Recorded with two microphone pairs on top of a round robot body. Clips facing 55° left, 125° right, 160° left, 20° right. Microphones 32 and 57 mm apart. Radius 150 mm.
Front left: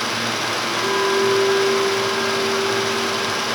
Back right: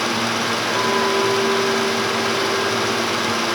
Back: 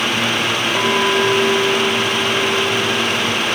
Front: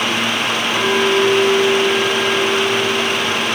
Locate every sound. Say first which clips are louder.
0.8 s a clink: even, front 2 dB; 150° left, 3.5 m